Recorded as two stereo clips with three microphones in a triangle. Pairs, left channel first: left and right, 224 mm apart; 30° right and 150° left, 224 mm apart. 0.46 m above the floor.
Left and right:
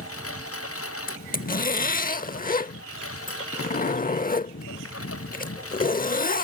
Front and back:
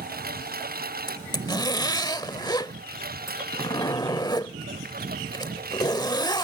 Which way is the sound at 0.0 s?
100° left.